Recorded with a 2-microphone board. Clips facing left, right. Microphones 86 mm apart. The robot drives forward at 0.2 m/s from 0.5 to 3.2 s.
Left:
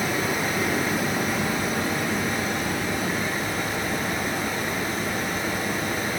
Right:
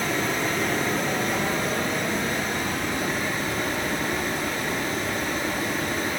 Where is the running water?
5° left (ahead or behind), 1.0 m.